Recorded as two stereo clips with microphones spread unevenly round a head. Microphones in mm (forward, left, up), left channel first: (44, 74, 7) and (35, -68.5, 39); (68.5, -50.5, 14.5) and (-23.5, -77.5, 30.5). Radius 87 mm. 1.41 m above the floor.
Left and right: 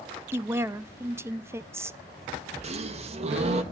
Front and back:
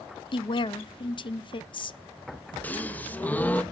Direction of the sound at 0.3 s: 15° right.